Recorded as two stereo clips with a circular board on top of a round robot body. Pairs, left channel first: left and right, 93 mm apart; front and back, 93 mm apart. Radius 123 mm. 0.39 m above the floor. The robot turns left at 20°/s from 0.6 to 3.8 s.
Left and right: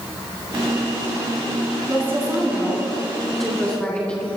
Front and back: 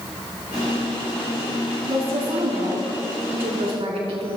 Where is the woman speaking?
155° right, 5 m; by 4.4 s 170° left, 5 m.